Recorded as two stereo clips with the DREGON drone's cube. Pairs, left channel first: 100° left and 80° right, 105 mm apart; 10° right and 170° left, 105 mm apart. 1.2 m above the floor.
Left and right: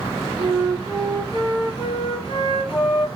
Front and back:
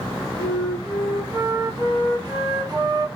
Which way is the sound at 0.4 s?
125° left.